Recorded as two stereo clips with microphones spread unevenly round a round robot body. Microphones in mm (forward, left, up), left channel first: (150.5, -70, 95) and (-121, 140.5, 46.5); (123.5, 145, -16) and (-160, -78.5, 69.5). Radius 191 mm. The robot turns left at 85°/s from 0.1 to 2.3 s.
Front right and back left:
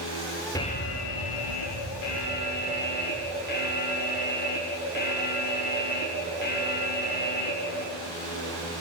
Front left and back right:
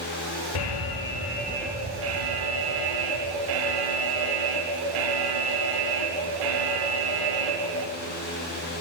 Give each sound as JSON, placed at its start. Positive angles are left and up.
{"t": 0.6, "sound": "an alarm", "azimuth_deg": 45, "distance_m": 5.0}